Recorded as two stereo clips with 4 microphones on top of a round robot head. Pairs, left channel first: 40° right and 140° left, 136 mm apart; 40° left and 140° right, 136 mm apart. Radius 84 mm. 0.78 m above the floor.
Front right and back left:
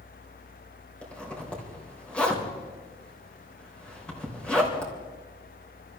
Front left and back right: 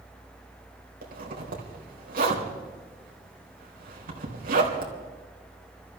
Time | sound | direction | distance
1.0 | a zipper | 125° right | 4 m